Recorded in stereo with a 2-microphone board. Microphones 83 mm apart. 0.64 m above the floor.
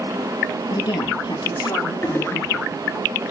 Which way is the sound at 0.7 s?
75° left (ahead or behind).